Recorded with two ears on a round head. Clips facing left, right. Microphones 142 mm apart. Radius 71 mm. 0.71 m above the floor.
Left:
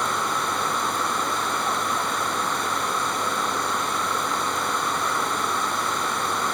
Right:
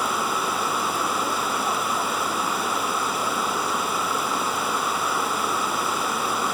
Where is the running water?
5° right (ahead or behind), 0.9 m.